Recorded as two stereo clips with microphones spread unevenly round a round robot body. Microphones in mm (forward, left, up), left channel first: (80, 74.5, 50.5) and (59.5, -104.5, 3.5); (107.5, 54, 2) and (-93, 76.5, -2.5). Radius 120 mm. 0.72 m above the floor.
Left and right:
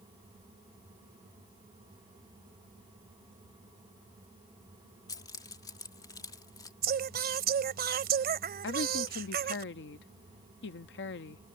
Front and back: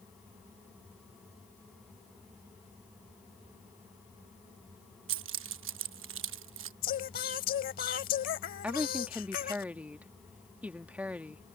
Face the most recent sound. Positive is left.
turn(degrees=95)